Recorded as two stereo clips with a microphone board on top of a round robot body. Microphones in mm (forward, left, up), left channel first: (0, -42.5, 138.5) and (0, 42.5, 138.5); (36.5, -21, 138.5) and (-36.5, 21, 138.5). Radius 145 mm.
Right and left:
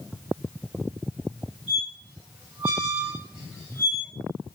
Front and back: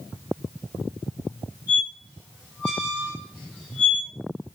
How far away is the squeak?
About 1.0 m.